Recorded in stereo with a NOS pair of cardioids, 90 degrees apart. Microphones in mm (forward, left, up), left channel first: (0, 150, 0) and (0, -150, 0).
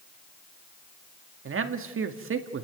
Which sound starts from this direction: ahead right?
A man speaking, at 1.4 s.